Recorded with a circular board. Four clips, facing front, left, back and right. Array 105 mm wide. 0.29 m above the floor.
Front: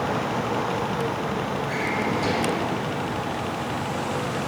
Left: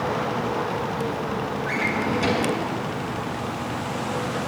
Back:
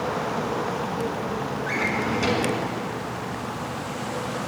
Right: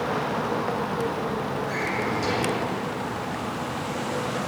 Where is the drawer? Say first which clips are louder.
Left 2 dB, even; 140° left, 1.4 m.